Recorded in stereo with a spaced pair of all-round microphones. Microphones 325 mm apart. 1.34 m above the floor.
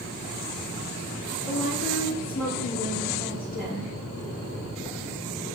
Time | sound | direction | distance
1.4 | a woman speaking | 70° left (ahead or behind) | 1.6 m